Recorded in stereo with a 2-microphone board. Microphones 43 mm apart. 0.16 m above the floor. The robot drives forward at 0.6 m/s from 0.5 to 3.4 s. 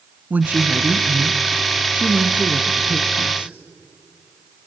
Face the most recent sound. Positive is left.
turn(degrees=-25)  # may be behind; listen again after turning